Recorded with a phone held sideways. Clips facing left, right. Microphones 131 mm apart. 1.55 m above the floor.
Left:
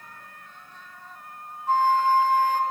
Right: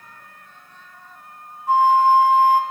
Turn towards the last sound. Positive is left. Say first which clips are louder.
# right 6 dB
turn(degrees=-10)  # may be behind; listen again after turning